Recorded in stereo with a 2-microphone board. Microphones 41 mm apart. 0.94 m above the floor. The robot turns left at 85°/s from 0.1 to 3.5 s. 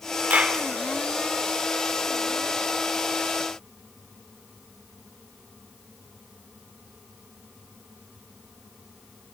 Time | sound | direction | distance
0.3 | a clap | 40° right (ahead or behind) | 3 m